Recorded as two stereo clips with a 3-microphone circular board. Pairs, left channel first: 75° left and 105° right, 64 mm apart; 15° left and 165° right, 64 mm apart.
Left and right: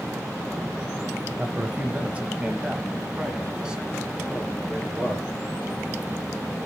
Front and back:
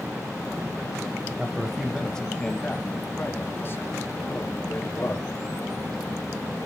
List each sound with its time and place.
1.4 s a man speaking: 115° right, 1.1 m; by 5.3 s 30° right, 3.5 m